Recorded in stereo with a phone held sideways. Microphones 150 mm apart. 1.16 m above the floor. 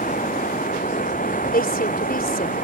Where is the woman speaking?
85° left.